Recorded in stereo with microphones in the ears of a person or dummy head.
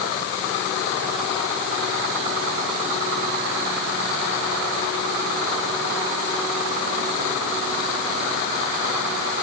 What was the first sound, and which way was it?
Only background noise.